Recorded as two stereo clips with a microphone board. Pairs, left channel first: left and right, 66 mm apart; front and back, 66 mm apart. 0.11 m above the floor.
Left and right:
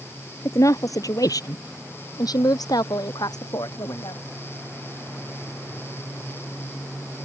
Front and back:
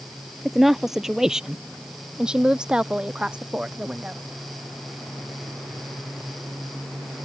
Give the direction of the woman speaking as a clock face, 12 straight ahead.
9 o'clock.